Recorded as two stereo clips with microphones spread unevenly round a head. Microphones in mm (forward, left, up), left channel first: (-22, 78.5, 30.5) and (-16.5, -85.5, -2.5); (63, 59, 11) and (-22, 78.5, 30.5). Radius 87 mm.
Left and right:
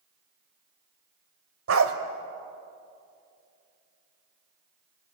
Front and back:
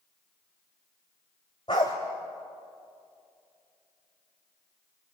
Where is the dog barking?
80° right, 1.5 m.